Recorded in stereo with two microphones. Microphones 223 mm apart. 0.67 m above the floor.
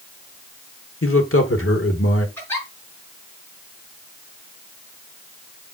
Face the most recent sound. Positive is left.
turn(degrees=10)  # may be behind; listen again after turning